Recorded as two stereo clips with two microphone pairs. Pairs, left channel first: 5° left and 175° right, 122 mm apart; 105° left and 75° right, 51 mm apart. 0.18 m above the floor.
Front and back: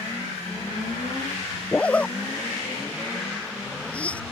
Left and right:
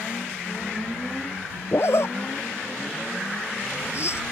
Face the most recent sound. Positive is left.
turn(degrees=85)